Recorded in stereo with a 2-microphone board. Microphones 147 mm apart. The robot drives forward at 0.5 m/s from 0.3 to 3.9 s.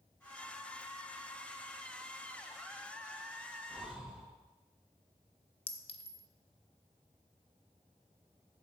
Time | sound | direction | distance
3.7 | breathing | 5° right (ahead or behind) | 1.2 m
5.7 | a clink | 40° left (ahead or behind) | 0.5 m